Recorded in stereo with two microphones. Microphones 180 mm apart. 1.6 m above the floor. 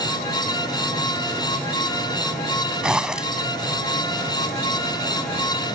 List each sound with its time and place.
2.8 s a zipper: 5° right (ahead or behind)